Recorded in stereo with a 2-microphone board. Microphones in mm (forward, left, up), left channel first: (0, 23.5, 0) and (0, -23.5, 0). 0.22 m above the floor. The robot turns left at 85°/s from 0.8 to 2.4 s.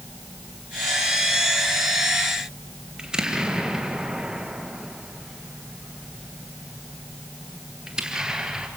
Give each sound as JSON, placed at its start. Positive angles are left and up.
{"t": 3.0, "sound": "an explosion", "side_deg": -15, "distance_m": 2.5}